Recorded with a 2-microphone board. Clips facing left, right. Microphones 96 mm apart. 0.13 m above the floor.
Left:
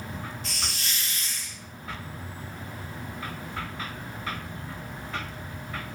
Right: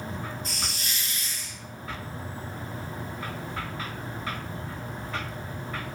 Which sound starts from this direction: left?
A hiss, at 0.4 s.